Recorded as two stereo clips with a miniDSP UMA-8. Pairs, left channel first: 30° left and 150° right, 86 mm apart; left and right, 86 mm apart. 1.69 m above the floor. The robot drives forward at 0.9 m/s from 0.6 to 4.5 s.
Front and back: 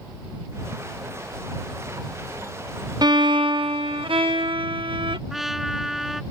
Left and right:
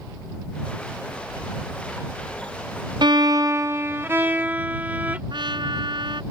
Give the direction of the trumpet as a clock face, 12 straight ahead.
2 o'clock.